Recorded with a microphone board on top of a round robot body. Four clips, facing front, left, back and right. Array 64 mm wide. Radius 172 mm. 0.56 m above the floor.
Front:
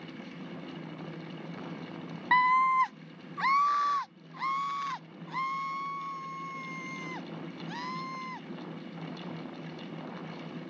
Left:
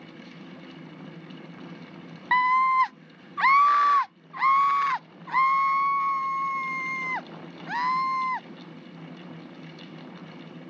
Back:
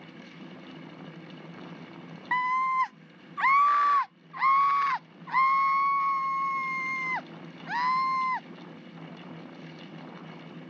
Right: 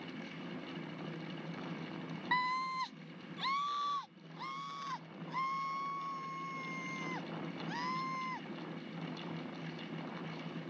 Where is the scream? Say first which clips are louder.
Left 15 dB, front 2 dB; 60° left; by 8.5 s 145° left.